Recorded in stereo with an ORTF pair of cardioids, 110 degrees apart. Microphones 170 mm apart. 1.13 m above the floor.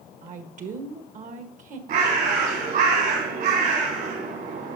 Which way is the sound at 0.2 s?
50° right.